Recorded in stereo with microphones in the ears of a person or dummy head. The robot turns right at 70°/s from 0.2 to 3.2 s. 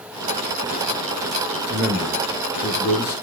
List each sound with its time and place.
1.7 s a man speaking: 30° right, 3 m; by 3.1 s 75° left, 3 m